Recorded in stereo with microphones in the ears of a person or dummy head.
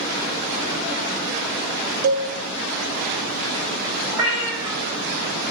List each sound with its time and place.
2.0 s a cowbell: 55° right (ahead or behind), 0.5 m
4.1 s a cat meowing: 15° right (ahead or behind), 1.8 m